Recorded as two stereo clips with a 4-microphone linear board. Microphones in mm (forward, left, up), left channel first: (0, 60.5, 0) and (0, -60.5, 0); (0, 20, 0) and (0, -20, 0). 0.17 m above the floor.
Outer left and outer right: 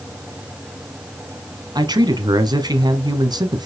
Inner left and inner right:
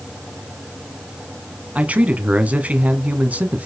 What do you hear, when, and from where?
1.8 s a man speaking: 35° right (ahead or behind), 1.2 m